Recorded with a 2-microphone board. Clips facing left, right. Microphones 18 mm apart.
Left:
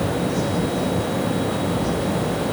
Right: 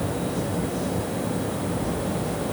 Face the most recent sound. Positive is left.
No sound to turn to.